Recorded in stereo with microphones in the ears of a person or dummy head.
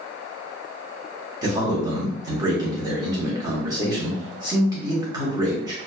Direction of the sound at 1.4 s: 25° right (ahead or behind).